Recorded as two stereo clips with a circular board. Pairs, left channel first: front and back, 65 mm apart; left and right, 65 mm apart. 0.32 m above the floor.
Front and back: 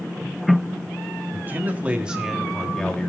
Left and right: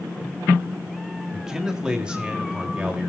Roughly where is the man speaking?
Behind.